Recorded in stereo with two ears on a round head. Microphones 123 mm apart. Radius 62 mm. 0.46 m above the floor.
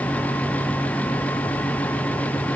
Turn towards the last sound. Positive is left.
No sound to turn to.